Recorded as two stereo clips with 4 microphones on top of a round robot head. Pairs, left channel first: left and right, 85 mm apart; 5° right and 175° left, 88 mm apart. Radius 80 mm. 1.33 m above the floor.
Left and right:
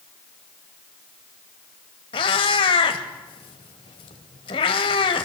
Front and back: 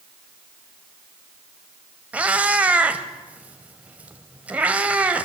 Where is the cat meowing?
100° left, 1.8 m.